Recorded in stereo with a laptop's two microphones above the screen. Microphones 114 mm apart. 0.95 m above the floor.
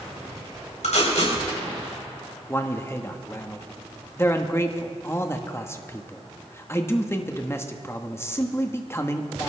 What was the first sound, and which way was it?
Tape being pulled, 85° left.